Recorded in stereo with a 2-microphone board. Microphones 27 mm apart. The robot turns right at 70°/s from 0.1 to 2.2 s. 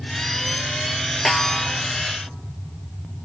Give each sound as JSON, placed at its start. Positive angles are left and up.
{"t": 1.2, "sound": "a snare drum", "azimuth_deg": 170, "distance_m": 0.9}